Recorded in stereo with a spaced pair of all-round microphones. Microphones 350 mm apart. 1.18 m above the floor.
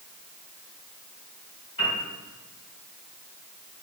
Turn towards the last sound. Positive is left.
turn(degrees=70)  # may be behind; listen again after turning